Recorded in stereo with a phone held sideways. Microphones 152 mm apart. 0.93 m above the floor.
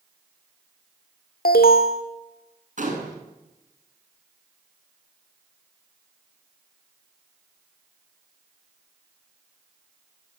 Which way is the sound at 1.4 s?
75° left (ahead or behind).